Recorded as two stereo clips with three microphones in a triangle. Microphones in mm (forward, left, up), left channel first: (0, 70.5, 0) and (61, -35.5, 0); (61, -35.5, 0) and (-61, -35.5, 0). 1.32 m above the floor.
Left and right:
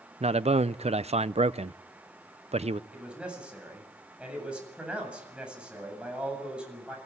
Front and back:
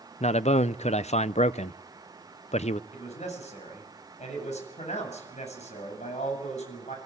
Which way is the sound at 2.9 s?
20° left.